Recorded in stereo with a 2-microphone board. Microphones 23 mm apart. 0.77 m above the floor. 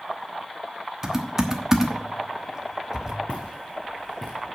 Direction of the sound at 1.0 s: 25° right (ahead or behind).